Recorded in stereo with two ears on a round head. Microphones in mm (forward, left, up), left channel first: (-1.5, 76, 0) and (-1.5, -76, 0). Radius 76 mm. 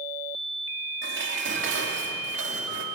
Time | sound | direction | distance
1.0 | dishes clattering | 75° right (ahead or behind) | 2.5 m